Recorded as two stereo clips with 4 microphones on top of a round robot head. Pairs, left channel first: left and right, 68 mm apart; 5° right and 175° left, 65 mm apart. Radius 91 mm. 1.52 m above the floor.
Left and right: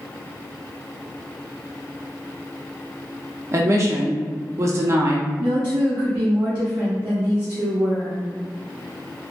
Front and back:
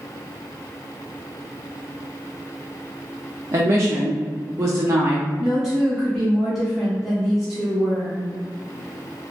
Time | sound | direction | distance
3.5 | a woman speaking | 135° right | 0.6 m
5.4 | a woman speaking | 100° right | 0.9 m